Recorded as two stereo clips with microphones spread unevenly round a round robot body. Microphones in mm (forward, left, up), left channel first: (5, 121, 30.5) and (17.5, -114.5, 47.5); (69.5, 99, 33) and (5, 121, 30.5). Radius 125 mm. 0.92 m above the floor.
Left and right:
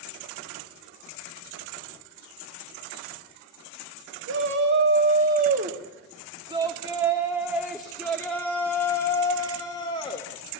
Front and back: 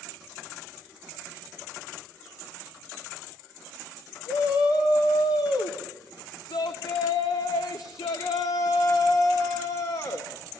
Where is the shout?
50° right, 2 m; by 10.3 s 25° left, 3.5 m.